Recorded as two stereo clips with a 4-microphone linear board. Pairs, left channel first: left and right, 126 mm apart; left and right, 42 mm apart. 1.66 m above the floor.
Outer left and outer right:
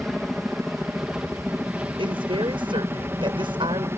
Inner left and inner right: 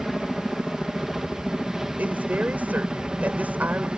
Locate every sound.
0.0 s a helicopter: centre (ahead or behind); by 4.0 s 20° right (ahead or behind)
2.0 s a woman speaking: 45° right (ahead or behind)